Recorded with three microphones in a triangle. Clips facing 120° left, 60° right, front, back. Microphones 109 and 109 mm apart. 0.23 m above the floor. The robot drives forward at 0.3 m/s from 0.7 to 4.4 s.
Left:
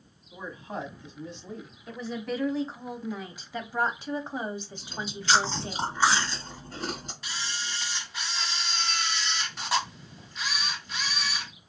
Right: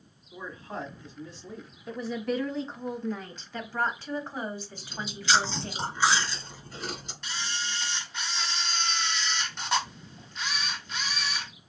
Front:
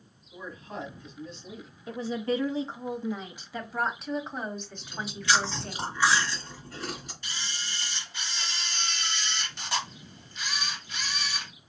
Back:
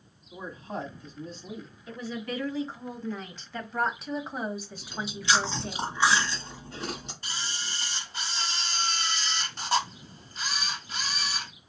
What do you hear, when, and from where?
0.3 s a man speaking: straight behind, 1.3 m
1.9 s a woman speaking: 25° left, 1.1 m; by 5.8 s 110° left, 0.9 m
4.8 s chewing: 125° left, 1.6 m
7.2 s a camera shutter: 155° right, 1.1 m